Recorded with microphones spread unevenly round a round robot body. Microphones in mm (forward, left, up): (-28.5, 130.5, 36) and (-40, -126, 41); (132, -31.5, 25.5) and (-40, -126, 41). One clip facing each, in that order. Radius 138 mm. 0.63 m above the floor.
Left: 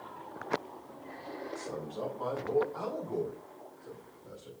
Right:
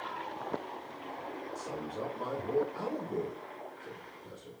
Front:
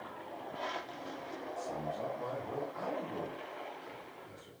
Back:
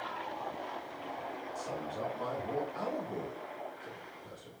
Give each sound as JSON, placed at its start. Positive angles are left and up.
{"t": 1.6, "sound": "a man speaking", "azimuth_deg": -155, "distance_m": 6.5}